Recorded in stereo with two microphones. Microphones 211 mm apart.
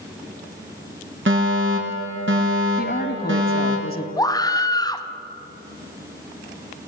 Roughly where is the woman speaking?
Left.